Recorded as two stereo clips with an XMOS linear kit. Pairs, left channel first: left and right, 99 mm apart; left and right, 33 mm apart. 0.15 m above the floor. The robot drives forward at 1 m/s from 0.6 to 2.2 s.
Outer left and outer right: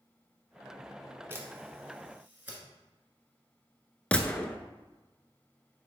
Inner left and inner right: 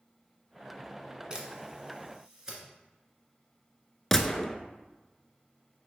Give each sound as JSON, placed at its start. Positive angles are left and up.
{"t": 1.3, "sound": "a camera shutter", "side_deg": -25, "distance_m": 1.3}
{"t": 4.1, "sound": "a gunshot", "side_deg": 15, "distance_m": 0.6}